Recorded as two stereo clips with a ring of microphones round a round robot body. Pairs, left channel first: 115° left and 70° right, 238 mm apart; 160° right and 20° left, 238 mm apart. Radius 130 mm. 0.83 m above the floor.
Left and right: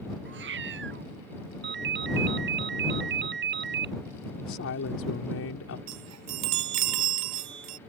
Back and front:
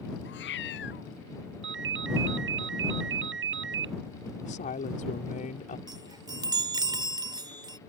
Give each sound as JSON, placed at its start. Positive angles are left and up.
{"t": 0.2, "sound": "a cat meowing", "azimuth_deg": -110}
{"t": 1.6, "sound": "a ringtone", "azimuth_deg": -20}
{"t": 4.4, "sound": "a woman speaking", "azimuth_deg": 145}
{"t": 5.9, "sound": "a chime", "azimuth_deg": -50}